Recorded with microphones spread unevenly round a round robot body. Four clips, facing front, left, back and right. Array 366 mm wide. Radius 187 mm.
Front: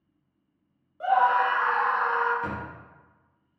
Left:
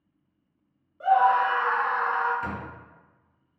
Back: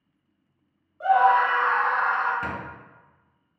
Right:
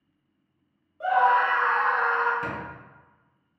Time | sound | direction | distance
1.0 | a scream | 15° left | 1.1 m
2.4 | a squeak | 170° right | 0.8 m